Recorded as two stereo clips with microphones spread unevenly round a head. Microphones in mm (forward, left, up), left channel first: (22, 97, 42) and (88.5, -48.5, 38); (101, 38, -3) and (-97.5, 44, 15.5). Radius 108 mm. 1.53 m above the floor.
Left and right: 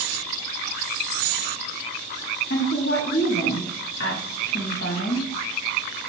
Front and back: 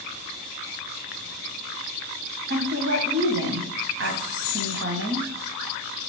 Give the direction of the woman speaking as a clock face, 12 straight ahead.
7 o'clock.